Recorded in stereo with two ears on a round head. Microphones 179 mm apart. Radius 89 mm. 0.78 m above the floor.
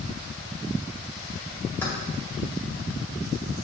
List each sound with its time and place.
1.8 s keys jangling: 10° left (ahead or behind), 1.8 m